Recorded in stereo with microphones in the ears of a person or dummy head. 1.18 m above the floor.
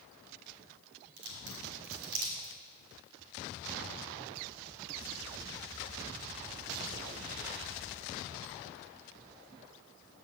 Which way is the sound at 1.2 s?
60° right (ahead or behind).